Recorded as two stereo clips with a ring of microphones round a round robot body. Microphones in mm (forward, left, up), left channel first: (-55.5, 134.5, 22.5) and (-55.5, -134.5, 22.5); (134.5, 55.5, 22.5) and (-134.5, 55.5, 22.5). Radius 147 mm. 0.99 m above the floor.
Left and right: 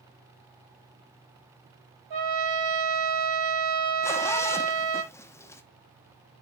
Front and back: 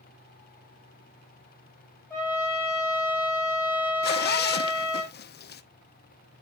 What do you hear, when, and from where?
2.1 s a trumpet: 80° right, 6 m
4.0 s a zipper: 15° left, 0.7 m